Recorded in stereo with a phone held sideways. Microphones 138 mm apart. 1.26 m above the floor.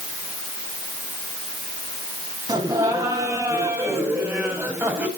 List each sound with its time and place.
2.5 s laughter: 25° right (ahead or behind), 9 m; by 5.1 s 15° right (ahead or behind), 7 m